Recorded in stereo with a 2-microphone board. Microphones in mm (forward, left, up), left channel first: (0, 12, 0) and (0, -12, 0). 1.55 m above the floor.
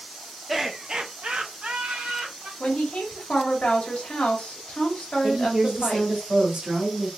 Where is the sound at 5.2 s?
55° right (ahead or behind), 2 m.